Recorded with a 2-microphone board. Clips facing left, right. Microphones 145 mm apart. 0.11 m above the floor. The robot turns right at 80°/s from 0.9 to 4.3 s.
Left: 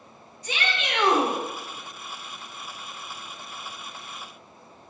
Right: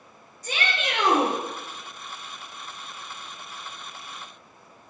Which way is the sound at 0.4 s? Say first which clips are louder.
Right 1 dB; 80° right.